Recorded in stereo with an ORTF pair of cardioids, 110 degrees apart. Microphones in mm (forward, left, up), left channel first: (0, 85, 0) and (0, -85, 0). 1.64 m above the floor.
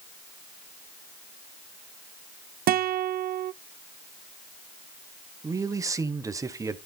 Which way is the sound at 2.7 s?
65° right.